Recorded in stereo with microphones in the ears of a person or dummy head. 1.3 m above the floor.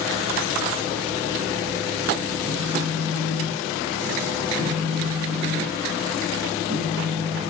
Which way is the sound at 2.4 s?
75° right (ahead or behind).